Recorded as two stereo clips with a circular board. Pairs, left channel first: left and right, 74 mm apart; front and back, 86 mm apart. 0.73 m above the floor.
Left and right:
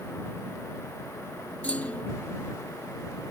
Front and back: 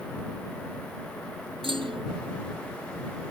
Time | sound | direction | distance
1.6 | a clunk | 160° left | ?